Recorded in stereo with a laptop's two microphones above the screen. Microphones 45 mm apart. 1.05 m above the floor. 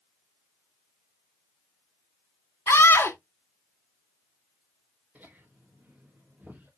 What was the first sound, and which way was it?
A scream, 65° left (ahead or behind).